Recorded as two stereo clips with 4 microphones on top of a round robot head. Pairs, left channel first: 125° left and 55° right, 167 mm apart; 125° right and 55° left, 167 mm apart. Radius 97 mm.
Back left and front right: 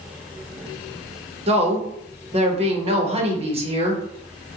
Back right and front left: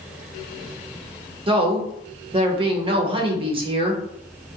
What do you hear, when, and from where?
1.5 s a woman speaking: 5° right, 0.8 m